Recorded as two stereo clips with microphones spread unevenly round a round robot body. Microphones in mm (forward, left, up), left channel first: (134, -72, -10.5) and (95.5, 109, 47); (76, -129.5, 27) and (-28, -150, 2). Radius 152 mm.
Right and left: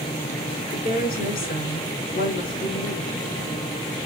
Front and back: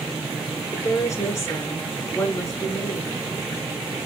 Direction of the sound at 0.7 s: 50° right.